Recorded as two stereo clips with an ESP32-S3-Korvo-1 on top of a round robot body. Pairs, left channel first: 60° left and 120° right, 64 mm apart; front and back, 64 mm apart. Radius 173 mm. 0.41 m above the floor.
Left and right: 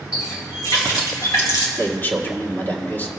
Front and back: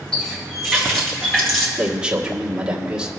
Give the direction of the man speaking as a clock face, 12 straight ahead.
8 o'clock.